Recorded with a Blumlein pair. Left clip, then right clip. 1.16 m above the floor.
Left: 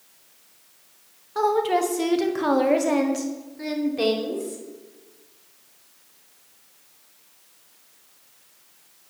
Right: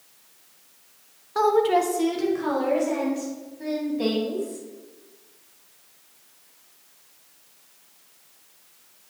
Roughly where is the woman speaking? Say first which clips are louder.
Right 1 dB; ahead.